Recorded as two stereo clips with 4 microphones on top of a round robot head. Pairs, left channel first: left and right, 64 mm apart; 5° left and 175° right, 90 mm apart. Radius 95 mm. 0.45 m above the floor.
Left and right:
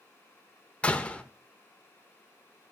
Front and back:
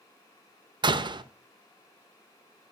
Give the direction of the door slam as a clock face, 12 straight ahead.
7 o'clock.